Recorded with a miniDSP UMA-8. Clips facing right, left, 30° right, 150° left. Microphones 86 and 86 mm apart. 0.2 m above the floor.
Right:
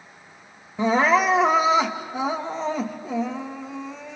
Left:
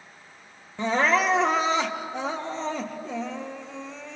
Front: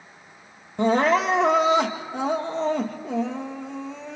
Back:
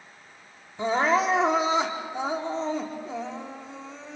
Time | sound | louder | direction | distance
0.8 | crying | right 4 dB, front 3 dB | 5° right | 1.9 m